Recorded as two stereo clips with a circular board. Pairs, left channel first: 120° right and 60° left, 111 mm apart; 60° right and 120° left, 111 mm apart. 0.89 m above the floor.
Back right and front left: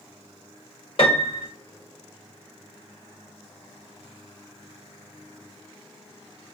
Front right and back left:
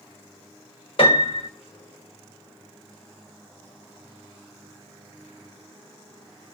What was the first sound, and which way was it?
A piano, 90° right.